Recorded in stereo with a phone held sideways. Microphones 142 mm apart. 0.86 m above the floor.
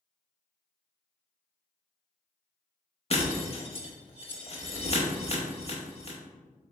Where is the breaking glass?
40° left (ahead or behind), 0.8 m.